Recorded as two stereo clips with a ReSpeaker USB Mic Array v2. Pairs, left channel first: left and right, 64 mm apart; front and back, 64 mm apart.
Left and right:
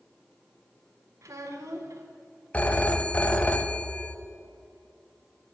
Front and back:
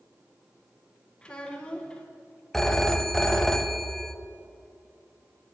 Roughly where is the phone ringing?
Left.